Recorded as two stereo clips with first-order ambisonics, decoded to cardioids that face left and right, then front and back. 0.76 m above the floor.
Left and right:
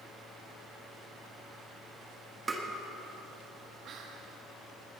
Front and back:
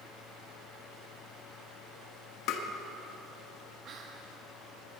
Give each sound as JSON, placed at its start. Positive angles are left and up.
{"t": 2.5, "sound": "tapping", "azimuth_deg": -20, "distance_m": 1.3}
{"t": 3.9, "sound": "whispering", "azimuth_deg": -135, "distance_m": 0.7}